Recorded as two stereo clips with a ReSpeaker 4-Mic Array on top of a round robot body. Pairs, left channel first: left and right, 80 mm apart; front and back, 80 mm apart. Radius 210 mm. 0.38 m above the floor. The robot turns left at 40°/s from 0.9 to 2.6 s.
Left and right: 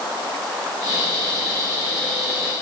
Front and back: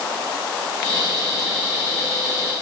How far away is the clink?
No clink in this recording.